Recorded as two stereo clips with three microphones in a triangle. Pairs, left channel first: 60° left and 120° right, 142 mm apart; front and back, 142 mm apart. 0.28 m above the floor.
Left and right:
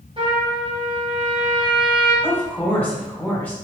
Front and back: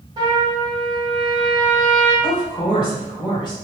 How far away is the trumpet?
About 1.5 m.